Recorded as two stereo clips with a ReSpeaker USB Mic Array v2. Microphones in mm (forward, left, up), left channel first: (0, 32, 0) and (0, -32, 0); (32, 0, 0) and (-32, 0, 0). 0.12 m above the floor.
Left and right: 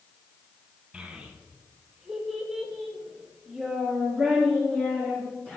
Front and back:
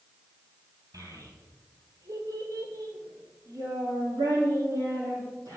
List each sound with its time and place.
0.9 s a child speaking: 170° right, 3 m; by 5.6 s 160° left, 4.5 m